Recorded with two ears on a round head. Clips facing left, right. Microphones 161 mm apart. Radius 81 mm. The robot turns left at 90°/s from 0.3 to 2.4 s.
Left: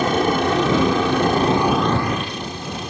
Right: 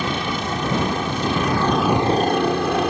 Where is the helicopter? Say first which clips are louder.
Left 7 dB; 40° left (ahead or behind); by 2.9 s 50° right (ahead or behind).